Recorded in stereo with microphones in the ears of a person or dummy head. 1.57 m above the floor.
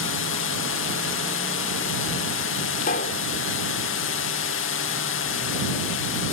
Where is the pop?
50° left (ahead or behind).